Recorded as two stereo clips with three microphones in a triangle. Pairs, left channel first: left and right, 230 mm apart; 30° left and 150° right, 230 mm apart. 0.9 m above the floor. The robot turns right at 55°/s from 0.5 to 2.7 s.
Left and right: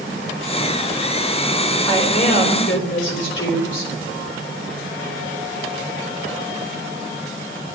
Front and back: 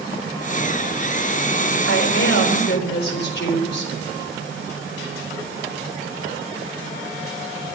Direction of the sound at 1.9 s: 20° left.